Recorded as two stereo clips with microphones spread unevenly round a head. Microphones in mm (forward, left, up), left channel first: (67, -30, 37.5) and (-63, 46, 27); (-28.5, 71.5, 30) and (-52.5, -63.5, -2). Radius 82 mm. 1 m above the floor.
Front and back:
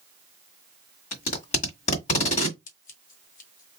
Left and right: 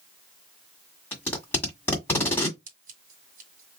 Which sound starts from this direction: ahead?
Tape being pulled, at 1.1 s.